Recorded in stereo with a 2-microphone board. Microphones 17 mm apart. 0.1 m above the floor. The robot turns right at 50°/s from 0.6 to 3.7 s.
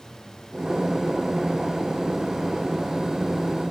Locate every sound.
Only background noise.